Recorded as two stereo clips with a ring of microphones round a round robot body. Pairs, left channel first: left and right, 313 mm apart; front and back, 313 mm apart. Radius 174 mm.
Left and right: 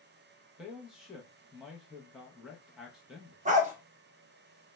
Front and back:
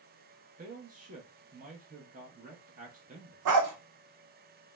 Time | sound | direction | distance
0.6 | a man speaking | 175° right | 0.5 m
3.5 | a dog barking | 155° right | 0.5 m